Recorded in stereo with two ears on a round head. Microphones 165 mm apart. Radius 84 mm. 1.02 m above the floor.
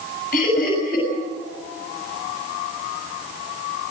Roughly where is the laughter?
Left.